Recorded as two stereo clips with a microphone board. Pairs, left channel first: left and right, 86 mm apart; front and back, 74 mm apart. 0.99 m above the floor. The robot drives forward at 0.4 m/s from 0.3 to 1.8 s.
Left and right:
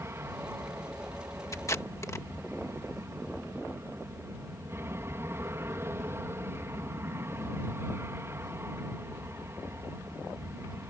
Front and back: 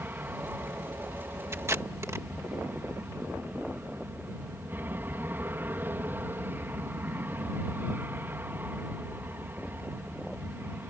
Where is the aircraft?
130° right; by 10.9 s 135° right.